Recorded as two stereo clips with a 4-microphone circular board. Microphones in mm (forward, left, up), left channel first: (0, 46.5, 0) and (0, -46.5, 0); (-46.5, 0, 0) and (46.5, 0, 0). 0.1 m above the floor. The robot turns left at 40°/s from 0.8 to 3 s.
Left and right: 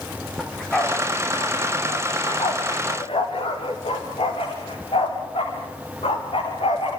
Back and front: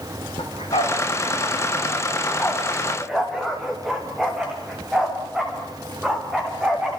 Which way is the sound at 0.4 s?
175° left.